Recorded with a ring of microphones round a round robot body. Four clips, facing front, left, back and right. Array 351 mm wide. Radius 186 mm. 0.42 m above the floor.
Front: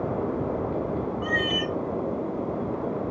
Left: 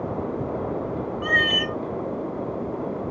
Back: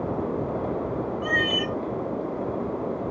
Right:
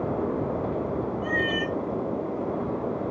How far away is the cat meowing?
About 0.8 m.